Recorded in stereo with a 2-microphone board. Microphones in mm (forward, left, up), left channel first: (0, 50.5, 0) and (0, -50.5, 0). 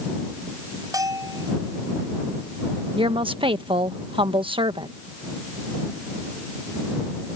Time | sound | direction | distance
0.9 | a bell | 40° right (ahead or behind) | ?
3.0 | a woman speaking | 55° right (ahead or behind) | ?